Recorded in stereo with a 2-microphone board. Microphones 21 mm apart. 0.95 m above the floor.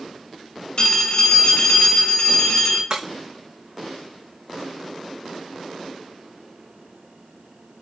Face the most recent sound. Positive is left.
turn(degrees=-40)  # may be behind; listen again after turning